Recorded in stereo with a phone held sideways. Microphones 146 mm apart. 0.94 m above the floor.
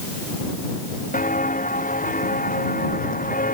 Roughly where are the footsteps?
Left.